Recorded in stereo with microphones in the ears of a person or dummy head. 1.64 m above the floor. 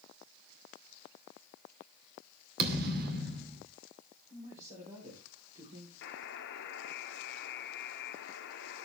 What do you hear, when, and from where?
2.6 s a thud: 60° right (ahead or behind), 2.5 m
4.3 s a man speaking: 40° right (ahead or behind), 4 m
6.0 s a buzzer: 65° left (ahead or behind), 1.1 m